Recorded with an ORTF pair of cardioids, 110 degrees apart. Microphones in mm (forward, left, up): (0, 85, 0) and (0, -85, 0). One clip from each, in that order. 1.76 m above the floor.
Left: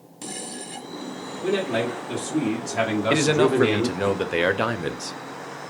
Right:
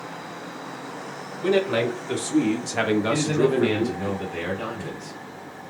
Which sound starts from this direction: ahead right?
A man speaking, at 1.4 s.